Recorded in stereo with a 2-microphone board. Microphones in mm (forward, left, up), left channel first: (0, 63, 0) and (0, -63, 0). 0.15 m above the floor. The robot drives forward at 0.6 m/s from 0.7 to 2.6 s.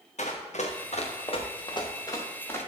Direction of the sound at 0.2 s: 70° left (ahead or behind).